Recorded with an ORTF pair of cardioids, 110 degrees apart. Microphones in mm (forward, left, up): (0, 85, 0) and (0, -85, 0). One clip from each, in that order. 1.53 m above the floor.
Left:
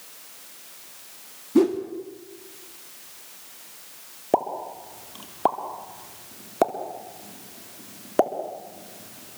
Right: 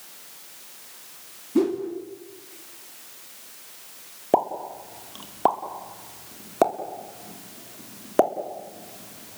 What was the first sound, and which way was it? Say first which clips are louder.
A whoosh: left 3 dB; 20° left.